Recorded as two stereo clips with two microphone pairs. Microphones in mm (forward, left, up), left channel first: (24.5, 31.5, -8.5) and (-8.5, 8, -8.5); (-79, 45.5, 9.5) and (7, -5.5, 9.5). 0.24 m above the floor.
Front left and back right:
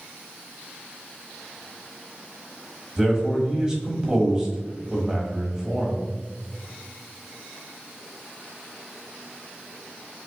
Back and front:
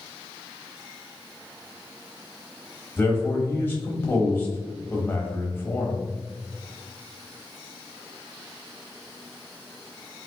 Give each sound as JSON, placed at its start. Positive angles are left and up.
{"t": 3.0, "sound": "a man speaking", "azimuth_deg": 165, "distance_m": 1.0}